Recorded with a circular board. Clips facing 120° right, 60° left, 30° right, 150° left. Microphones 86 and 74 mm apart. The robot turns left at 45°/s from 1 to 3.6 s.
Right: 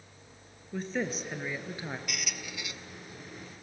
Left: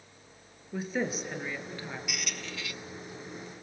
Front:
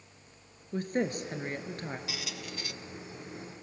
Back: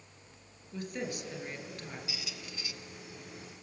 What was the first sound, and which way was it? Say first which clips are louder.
A woman speaking: left 1 dB, front 7 dB; 20° right.